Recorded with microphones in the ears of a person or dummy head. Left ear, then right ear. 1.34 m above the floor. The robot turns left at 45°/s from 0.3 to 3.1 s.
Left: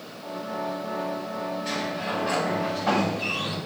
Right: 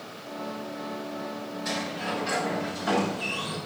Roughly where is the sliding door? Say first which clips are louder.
Right 2 dB; behind right.